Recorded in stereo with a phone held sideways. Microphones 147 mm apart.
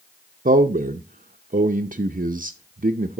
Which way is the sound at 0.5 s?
70° right (ahead or behind).